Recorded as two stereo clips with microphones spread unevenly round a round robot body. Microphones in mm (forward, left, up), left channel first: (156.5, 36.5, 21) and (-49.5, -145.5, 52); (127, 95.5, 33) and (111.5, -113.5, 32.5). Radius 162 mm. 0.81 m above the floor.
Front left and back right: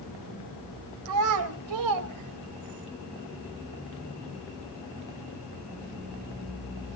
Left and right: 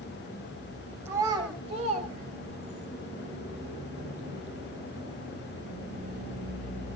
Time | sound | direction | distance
1.1 | a child speaking | 175° right | 3 m